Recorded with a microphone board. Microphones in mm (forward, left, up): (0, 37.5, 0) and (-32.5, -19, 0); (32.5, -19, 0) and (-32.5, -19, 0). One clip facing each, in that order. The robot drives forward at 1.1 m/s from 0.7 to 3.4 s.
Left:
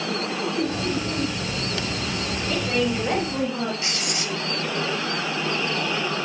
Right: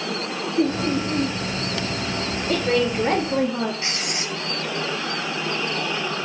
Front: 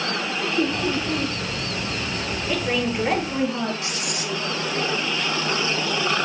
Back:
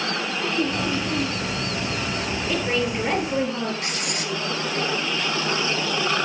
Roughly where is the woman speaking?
Right.